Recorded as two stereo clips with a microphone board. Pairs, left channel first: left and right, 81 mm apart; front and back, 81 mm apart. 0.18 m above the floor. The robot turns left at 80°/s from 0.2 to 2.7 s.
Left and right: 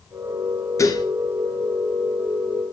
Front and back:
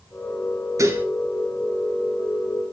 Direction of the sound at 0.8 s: 135° left.